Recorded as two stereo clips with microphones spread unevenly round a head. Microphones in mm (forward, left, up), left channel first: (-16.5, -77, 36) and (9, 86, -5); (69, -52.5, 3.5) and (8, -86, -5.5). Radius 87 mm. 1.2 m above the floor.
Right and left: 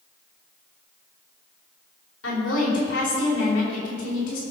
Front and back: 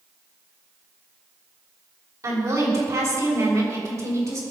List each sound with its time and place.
2.2 s a woman speaking: 115° right, 5.5 m